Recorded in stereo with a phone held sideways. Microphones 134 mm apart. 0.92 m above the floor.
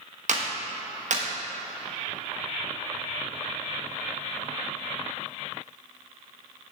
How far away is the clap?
About 1.1 m.